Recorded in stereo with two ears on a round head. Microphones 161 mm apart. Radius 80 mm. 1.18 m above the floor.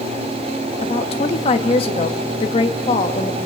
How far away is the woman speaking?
About 1.5 m.